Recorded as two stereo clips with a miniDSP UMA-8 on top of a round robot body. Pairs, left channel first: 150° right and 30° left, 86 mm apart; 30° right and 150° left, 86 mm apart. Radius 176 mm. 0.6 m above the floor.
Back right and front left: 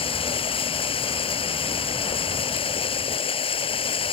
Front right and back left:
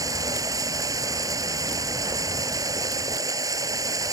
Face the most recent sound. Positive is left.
turn(degrees=-160)